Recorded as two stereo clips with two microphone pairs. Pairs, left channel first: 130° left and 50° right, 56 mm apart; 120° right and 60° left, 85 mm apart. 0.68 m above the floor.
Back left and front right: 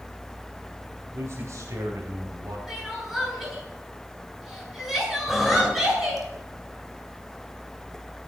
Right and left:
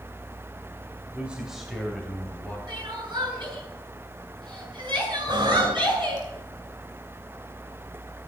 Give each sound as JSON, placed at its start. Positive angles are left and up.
{"t": 1.1, "sound": "a man speaking", "azimuth_deg": -15, "distance_m": 2.0}
{"t": 2.7, "sound": "crying", "azimuth_deg": 30, "distance_m": 9.0}
{"t": 5.3, "sound": "breathing", "azimuth_deg": 35, "distance_m": 2.5}